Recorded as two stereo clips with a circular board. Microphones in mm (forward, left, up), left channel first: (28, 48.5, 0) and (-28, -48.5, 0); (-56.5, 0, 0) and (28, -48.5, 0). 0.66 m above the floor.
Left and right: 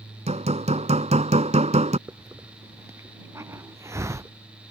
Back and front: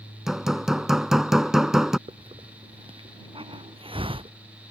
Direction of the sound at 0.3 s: 115° right.